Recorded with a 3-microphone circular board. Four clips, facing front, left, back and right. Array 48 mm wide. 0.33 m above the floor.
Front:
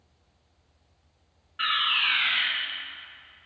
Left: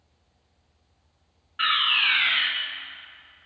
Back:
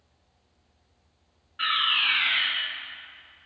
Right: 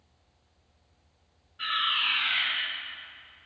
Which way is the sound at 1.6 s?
80° left.